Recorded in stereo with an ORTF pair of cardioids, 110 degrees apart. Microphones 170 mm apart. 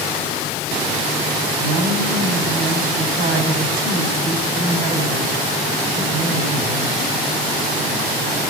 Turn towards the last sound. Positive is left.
turn(degrees=-65)